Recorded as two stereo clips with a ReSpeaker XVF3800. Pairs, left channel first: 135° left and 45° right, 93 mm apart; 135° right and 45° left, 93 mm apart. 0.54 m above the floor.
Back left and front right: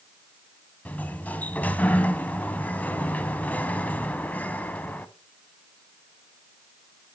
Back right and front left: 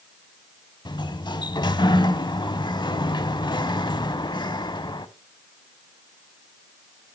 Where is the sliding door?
155° right, 0.6 m.